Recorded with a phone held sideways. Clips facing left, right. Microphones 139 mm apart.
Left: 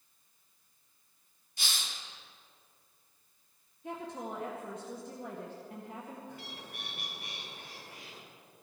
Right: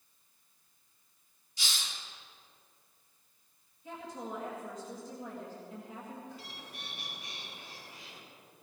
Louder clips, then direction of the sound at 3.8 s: Left 2 dB; 55° left (ahead or behind).